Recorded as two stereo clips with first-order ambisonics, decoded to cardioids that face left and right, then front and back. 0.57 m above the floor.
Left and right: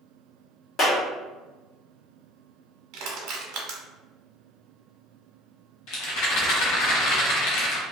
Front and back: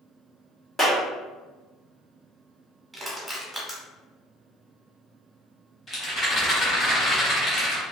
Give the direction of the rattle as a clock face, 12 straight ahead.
10 o'clock.